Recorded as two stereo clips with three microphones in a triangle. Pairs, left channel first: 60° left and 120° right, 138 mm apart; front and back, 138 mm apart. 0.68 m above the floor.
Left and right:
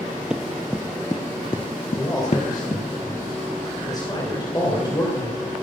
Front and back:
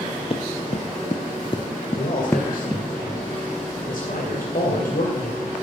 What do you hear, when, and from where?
0.3 s running footsteps: 35° right, 1.1 m; by 2.8 s 85° left, 1.2 m
2.0 s a man speaking: straight ahead, 2.5 m